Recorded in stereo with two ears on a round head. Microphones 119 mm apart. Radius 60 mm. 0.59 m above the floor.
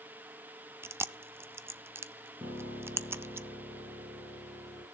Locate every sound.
0.8 s chewing: 20° right (ahead or behind), 0.5 m
2.4 s a piano: 15° right (ahead or behind), 8.5 m